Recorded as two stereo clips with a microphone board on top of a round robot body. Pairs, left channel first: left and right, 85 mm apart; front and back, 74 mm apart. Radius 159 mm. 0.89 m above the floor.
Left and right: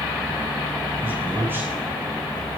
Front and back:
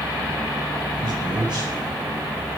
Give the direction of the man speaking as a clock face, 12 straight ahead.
5 o'clock.